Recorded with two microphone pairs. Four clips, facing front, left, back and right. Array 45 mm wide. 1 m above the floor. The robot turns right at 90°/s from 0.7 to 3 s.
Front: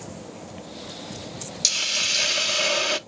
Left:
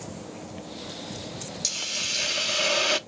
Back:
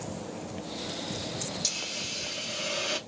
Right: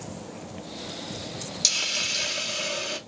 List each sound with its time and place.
1.6 s a hiss: 50° right, 0.6 m; by 3.0 s 70° left, 0.6 m